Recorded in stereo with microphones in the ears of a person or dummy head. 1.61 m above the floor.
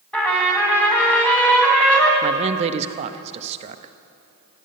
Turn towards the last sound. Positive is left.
turn(degrees=-35)  # may be behind; listen again after turning